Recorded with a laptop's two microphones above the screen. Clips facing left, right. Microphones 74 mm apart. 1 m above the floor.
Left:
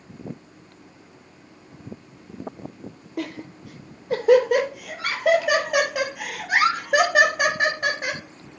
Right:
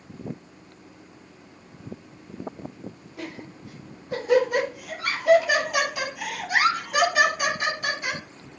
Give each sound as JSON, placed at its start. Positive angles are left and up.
{"t": 3.2, "sound": "laughter", "side_deg": 70, "distance_m": 3.5}